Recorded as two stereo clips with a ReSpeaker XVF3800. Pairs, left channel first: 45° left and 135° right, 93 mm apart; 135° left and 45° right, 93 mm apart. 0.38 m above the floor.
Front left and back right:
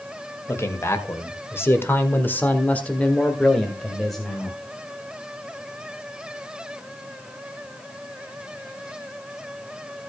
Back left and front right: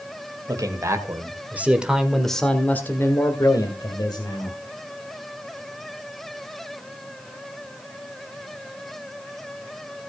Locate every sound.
0.5 s a man speaking: 5° right, 1.9 m; by 4.6 s 135° left, 2 m